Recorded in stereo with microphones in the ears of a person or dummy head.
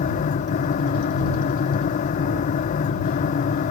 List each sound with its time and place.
0.0 s a fan: 45° left (ahead or behind)